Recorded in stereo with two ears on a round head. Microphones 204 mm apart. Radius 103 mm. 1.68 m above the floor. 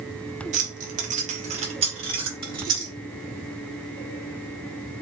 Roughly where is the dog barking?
I don't hear a dog barking.